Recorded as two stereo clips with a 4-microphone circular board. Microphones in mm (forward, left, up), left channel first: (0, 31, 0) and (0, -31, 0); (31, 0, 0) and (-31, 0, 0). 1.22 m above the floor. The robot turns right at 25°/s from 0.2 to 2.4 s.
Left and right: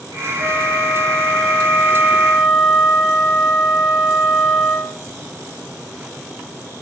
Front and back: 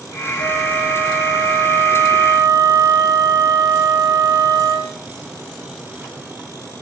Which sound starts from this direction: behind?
A flute, at 0.4 s.